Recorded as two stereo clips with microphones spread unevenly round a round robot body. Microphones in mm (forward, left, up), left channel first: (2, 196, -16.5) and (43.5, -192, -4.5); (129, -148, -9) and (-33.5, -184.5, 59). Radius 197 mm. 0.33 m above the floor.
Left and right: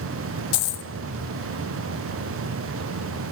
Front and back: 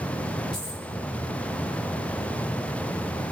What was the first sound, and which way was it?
A dropped coin, 75° left.